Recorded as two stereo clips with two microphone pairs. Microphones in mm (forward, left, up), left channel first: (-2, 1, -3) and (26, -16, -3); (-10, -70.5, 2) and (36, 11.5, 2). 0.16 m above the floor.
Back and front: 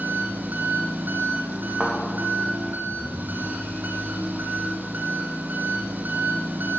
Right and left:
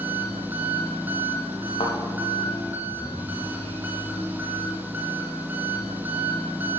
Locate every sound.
0.0 s an engine running: 10° right, 1.5 m
1.8 s a thud: 100° right, 4 m